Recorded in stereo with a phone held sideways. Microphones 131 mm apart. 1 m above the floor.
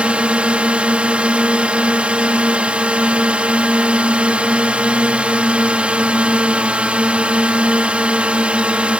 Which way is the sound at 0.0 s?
10° right (ahead or behind).